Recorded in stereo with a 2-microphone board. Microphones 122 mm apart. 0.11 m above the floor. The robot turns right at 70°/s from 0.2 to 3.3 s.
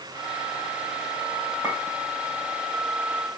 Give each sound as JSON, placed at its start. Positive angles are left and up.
{"t": 1.6, "sound": "a clink", "side_deg": -25, "distance_m": 5.0}